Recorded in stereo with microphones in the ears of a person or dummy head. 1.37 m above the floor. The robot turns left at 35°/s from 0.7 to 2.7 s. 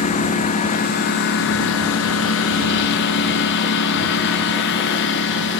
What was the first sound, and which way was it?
A lawn mower, 45° left (ahead or behind).